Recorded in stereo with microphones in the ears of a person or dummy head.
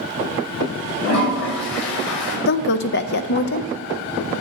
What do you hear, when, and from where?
1.0 s a toilet flushing: 80° left, 5 m
2.5 s a woman speaking: 50° left (ahead or behind), 0.6 m